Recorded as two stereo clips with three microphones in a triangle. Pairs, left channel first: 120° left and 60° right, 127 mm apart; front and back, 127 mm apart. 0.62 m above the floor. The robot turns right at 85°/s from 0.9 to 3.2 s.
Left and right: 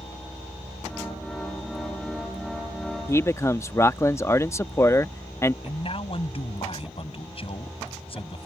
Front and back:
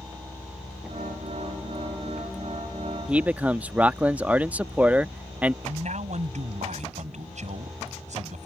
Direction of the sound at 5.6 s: 160° left.